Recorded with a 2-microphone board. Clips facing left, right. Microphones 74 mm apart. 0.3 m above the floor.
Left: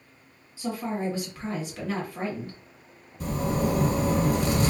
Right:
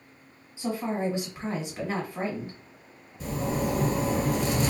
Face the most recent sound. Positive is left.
turn(degrees=50)  # may be behind; listen again after turning